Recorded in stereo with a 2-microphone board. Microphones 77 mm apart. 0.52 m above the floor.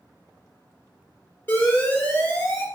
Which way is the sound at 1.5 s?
25° left (ahead or behind).